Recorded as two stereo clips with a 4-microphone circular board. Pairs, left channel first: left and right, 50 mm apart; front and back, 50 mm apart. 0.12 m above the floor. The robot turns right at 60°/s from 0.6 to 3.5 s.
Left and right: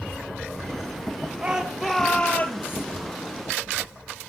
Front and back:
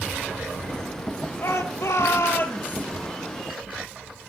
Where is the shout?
25° right, 3 m; by 2.9 s 60° left, 3 m.